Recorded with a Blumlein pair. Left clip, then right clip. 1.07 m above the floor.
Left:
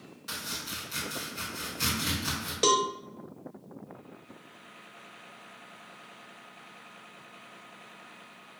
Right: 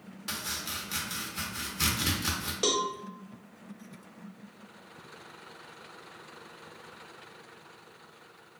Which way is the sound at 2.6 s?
10° left.